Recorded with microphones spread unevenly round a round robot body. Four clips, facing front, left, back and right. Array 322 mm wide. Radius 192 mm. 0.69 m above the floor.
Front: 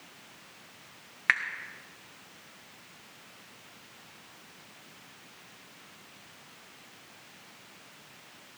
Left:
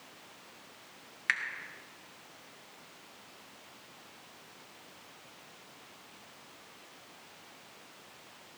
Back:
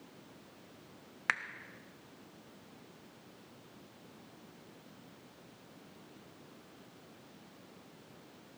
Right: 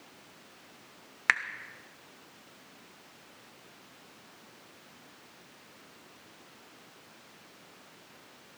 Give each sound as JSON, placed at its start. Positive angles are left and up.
{"t": 1.3, "sound": "a finger snap", "azimuth_deg": -105, "distance_m": 0.9}